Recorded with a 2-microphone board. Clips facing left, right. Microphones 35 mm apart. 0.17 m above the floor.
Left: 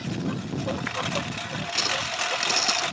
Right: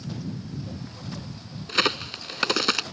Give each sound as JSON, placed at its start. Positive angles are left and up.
{"t": 0.0, "sound": "a lawn mower", "side_deg": 85}
{"t": 1.7, "sound": "a crack", "side_deg": -45}